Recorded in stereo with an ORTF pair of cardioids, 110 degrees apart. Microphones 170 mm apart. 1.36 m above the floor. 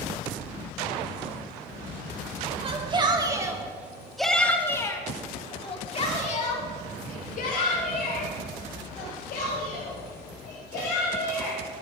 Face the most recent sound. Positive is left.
turn(degrees=75)